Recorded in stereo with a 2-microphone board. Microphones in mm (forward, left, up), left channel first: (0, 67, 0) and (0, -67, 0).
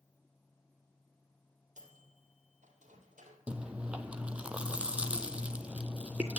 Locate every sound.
1.8 s a microwave: 65° right (ahead or behind), 2.5 m
3.5 s chewing: 10° right (ahead or behind), 0.6 m